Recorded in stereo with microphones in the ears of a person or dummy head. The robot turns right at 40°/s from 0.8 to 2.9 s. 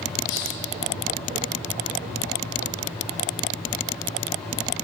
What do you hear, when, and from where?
0.3 s a hiss: 70° left (ahead or behind), 2.0 m